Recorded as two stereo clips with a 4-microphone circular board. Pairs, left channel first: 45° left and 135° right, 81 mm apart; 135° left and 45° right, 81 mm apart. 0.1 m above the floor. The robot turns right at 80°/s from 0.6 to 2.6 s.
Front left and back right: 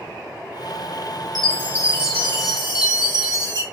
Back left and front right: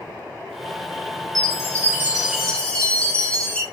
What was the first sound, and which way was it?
A chime, 40° right.